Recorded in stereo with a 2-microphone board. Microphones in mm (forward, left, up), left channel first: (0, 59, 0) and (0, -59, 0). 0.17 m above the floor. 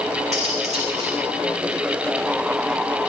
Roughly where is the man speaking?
I don't hear a man speaking.